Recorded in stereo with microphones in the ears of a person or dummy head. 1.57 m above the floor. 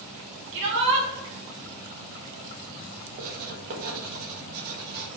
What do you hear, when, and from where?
0.5 s a shout: 70° right (ahead or behind), 2.5 m
3.2 s writing: 50° right (ahead or behind), 1.3 m